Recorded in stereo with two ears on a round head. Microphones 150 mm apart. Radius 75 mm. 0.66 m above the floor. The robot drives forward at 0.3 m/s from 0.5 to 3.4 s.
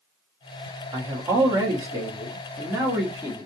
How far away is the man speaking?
About 1.1 m.